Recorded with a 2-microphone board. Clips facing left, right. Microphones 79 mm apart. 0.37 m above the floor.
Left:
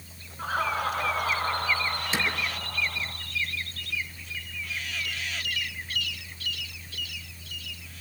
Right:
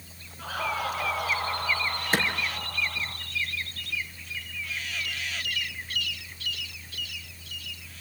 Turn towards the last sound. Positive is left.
turn(degrees=-50)  # may be behind; listen again after turning